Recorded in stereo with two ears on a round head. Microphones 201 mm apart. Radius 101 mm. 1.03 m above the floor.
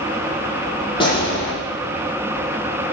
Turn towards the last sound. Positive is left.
turn(degrees=25)  # may be behind; listen again after turning